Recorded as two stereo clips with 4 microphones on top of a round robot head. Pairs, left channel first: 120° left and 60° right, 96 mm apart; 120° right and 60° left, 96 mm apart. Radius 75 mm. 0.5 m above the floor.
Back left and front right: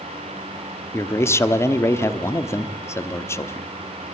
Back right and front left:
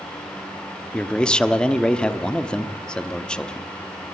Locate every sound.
0.9 s a man speaking: 165° left, 1.1 m